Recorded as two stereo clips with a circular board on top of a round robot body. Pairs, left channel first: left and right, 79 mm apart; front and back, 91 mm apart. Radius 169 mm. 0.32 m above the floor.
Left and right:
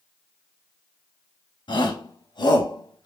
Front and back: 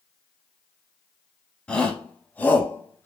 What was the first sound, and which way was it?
A shout, 80° left.